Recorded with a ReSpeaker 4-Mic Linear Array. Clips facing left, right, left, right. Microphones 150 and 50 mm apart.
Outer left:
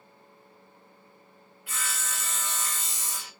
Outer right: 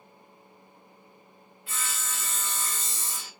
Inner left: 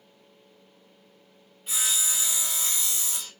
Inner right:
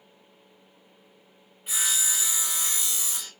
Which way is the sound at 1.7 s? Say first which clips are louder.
Even, inner right 1 dB; 25° right (ahead or behind).